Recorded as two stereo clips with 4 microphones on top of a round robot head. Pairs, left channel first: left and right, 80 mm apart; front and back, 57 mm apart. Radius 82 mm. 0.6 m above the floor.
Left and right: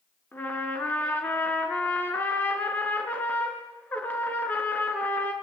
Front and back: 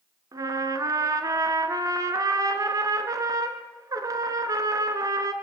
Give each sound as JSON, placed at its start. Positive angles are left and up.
{"t": 0.3, "sound": "a trumpet", "azimuth_deg": 165, "distance_m": 2.0}